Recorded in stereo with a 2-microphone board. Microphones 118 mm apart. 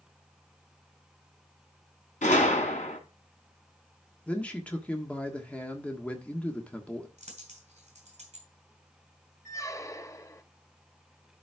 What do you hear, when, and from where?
2.2 s a gunshot: 80° left, 2.5 m
4.3 s a man speaking: 10° left (ahead or behind), 1.4 m
7.2 s a dropped coin: 65° right (ahead or behind), 4 m
9.4 s a squeak: 25° left (ahead or behind), 0.7 m